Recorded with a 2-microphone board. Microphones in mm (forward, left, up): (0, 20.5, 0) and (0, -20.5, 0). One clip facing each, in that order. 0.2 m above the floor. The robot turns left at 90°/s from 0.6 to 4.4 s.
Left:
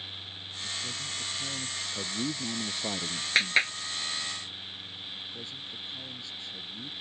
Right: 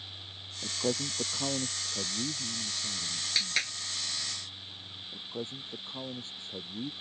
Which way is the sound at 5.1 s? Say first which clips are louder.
Right 6 dB; 40° right (ahead or behind).